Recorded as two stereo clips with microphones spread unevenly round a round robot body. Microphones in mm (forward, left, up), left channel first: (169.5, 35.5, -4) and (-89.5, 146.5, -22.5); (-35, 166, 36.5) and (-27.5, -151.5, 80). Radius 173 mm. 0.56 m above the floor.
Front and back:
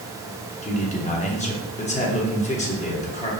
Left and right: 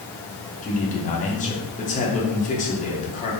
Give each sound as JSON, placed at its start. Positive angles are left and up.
{"t": 0.6, "sound": "a man speaking", "azimuth_deg": 40, "distance_m": 1.2}